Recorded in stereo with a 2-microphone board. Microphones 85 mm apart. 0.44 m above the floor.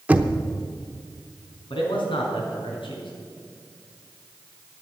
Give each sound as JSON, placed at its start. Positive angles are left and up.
{"t": 0.1, "sound": "knocking", "side_deg": -20, "distance_m": 0.7}
{"t": 1.7, "sound": "a man speaking", "side_deg": 75, "distance_m": 3.5}